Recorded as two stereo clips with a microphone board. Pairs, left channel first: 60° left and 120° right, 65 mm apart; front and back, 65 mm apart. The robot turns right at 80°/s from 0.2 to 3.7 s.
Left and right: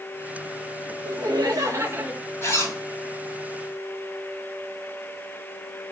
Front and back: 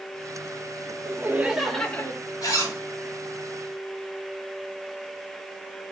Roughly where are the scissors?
No scissors in this recording.